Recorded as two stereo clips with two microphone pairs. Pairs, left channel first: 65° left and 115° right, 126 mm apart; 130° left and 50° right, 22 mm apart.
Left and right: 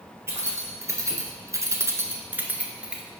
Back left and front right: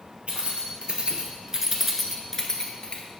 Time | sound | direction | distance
0.3 | keys jangling | 50° right | 1.4 m